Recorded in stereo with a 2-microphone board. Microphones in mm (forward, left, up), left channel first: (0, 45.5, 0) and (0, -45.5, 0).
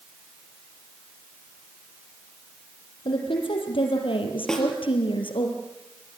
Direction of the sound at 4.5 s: 5° left (ahead or behind).